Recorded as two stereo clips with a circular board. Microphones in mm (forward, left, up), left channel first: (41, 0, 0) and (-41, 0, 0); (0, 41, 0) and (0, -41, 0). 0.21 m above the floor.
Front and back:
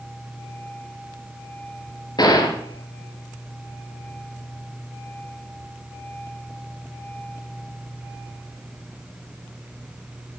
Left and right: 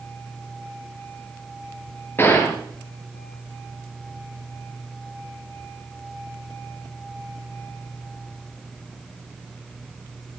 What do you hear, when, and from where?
2.2 s a gunshot: 30° left, 2.5 m